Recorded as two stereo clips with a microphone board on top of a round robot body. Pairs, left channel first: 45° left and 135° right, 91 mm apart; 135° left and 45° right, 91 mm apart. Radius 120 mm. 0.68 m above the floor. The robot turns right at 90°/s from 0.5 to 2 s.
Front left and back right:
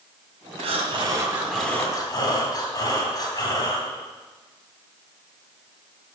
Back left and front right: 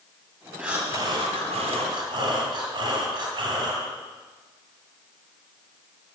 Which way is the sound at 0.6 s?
130° right.